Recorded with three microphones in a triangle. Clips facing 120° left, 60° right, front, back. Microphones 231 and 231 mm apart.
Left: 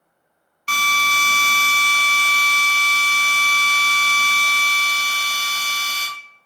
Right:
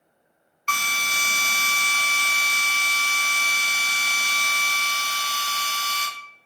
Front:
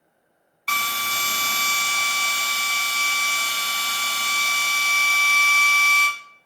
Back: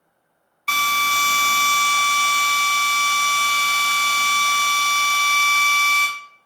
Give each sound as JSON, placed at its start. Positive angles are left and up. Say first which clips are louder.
{"t": 0.7, "sound": "a drill", "louder": "left 6 dB, back 4 dB", "azimuth_deg": 90, "distance_m": 0.6}